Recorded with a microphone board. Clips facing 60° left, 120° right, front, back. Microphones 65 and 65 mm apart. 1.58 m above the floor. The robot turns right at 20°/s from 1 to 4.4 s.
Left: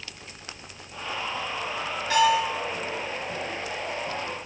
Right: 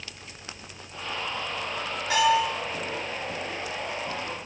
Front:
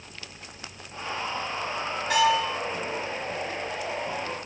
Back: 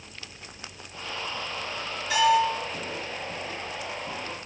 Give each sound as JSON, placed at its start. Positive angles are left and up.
{"t": 2.1, "sound": "a bell", "azimuth_deg": -45, "distance_m": 1.6}